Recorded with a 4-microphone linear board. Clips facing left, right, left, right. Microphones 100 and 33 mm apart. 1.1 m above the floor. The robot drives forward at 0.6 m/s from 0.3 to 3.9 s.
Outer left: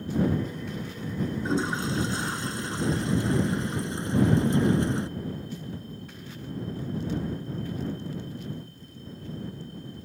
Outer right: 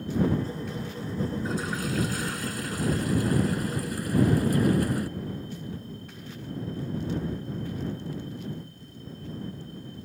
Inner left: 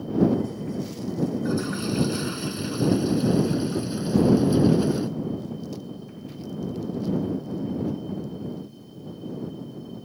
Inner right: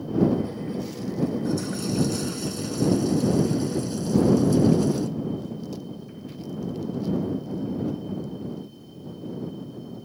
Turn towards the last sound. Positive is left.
turn(degrees=25)  # may be behind; listen again after turning